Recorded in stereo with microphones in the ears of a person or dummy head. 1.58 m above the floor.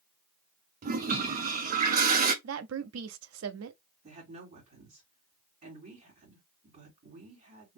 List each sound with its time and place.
0.8 s a toilet flushing: 45° right (ahead or behind), 0.6 m
2.4 s a woman speaking: 75° right (ahead or behind), 0.5 m
4.0 s a woman speaking: 45° right (ahead or behind), 2.5 m